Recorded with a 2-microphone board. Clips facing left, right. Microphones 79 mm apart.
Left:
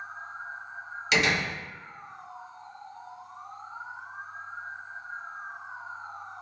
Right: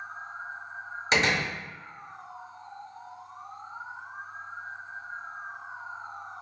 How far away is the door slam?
About 1.5 m.